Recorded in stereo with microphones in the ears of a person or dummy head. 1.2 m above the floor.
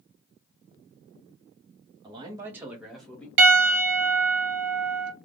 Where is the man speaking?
30° right (ahead or behind), 0.8 m; by 3.3 s 5° left (ahead or behind), 1.0 m.